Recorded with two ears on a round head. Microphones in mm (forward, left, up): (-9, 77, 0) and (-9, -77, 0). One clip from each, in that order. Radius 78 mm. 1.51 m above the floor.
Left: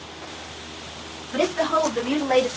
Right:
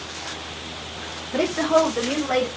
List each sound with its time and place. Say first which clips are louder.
1.3 s a woman speaking: right 2 dB; 15° left (ahead or behind), 3 m; by 2.5 s 45° left (ahead or behind), 3 m